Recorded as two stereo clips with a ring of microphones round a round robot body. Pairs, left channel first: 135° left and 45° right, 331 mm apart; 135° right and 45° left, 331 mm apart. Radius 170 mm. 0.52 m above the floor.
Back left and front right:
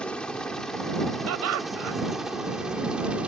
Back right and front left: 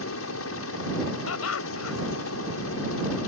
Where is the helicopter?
140° right; by 3.3 s 130° right.